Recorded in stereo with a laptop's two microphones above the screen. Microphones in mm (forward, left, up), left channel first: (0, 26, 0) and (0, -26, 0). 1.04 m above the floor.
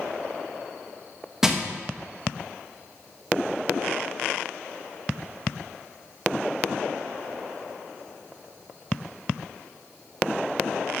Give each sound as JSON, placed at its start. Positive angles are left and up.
{"t": 1.4, "sound": "crushing", "side_deg": -10, "distance_m": 1.0}